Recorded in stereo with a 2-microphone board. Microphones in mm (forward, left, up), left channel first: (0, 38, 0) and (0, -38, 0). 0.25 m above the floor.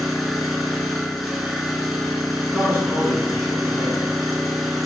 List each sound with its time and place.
0.0 s an engine running: centre (ahead or behind), 0.9 m
2.5 s a man speaking: 15° left (ahead or behind), 1.6 m